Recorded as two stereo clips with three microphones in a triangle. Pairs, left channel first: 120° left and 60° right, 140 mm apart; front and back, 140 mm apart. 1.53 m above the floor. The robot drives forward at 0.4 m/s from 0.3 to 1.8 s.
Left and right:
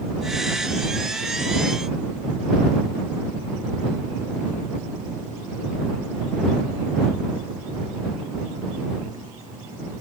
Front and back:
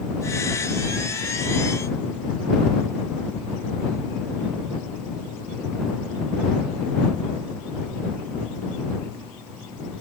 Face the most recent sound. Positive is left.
No sound to turn to.